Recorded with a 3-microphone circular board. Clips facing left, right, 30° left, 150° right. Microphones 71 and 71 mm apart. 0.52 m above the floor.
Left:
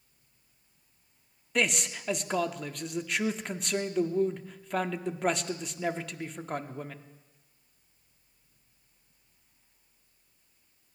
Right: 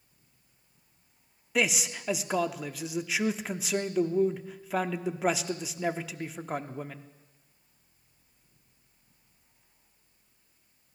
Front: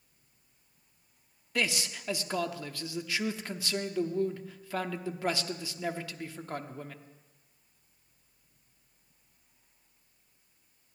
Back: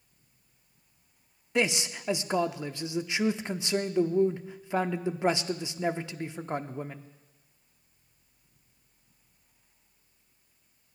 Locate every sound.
1.6 s a man speaking: 170° right, 0.6 m